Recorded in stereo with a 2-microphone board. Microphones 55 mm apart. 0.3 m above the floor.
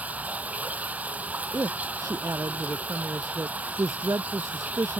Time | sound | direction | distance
0.0 | running water | 25° right (ahead or behind) | ?
1.5 | a woman speaking | 70° right (ahead or behind) | ?